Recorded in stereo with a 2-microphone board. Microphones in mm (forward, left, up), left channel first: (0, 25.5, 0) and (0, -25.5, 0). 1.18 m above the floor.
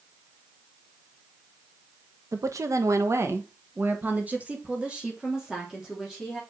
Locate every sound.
2.3 s a woman speaking: 75° right (ahead or behind), 1.1 m; by 6.4 s 5° right (ahead or behind), 3 m